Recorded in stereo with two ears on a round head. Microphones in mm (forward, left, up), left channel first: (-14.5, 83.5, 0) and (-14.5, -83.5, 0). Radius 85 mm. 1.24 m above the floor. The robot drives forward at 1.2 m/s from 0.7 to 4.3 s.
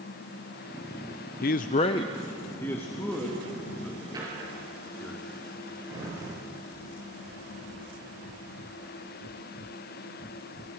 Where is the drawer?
20° right (ahead or behind), 7 m.